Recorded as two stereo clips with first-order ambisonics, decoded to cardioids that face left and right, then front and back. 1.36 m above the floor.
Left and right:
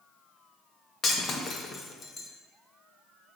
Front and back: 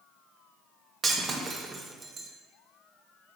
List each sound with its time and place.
1.0 s breaking glass: 125° left, 0.7 m